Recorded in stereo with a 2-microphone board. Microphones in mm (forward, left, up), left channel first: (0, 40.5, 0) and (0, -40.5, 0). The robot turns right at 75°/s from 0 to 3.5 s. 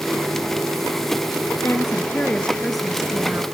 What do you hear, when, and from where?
1.6 s a woman speaking: 95° left, 1.3 m; by 3.4 s 130° right, 1.3 m